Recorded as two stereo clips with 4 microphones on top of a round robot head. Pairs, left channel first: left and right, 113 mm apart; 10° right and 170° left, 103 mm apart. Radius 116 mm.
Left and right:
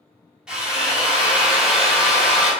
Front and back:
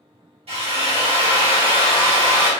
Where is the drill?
170° right, 1.1 m.